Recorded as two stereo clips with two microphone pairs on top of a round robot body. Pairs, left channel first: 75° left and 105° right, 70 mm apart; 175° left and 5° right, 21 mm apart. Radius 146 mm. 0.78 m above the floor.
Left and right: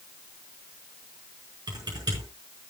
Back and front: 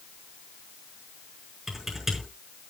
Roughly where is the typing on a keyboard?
Right.